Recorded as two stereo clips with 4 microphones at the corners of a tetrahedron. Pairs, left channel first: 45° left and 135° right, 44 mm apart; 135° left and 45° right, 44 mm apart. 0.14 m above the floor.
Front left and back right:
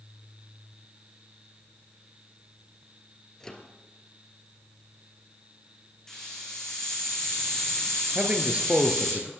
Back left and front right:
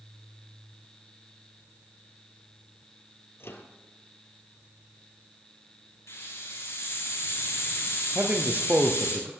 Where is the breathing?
No breathing in this recording.